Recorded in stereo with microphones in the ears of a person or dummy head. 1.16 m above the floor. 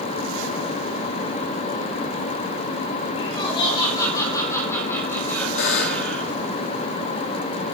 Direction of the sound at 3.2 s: 30° left (ahead or behind).